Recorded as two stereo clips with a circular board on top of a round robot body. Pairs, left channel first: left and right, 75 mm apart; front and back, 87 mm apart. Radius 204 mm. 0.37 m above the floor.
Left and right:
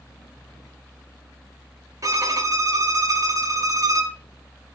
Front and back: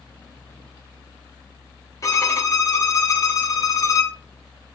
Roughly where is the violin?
Ahead right.